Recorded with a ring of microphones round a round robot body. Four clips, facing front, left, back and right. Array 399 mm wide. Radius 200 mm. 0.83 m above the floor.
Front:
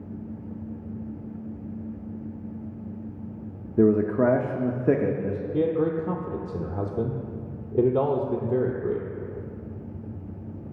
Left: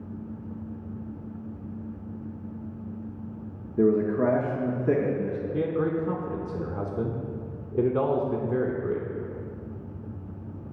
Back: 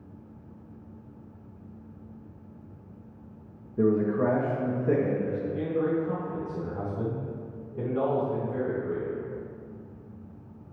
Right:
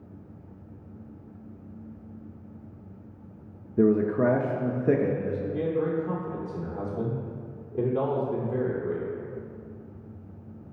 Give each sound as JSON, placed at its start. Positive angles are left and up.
{"t": 3.8, "sound": "a man speaking", "azimuth_deg": -10, "distance_m": 0.5}
{"t": 5.5, "sound": "a man speaking", "azimuth_deg": 20, "distance_m": 0.6}